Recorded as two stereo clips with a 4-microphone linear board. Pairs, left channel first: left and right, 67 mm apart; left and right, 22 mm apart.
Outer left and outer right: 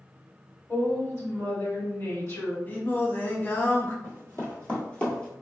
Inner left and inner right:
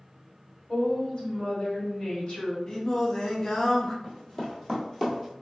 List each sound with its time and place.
0.7 s a woman speaking: 40° left (ahead or behind), 1.6 m
2.7 s singing: 25° left (ahead or behind), 0.5 m
4.0 s running footsteps: 35° left (ahead or behind), 1.8 m; by 5.3 s 10° left (ahead or behind), 1.2 m